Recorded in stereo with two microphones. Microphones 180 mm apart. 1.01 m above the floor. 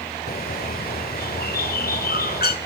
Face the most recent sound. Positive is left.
turn(degrees=55)  # may be behind; listen again after turning